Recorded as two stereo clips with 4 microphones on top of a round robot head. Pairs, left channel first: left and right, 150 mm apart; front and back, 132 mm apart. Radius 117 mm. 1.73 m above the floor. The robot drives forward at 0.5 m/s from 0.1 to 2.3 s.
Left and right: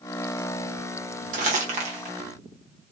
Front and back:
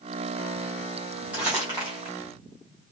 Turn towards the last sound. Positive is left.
turn(degrees=-125)